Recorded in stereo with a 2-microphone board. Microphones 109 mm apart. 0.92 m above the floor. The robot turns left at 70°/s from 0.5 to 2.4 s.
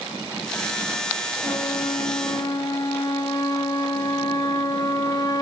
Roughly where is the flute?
Left.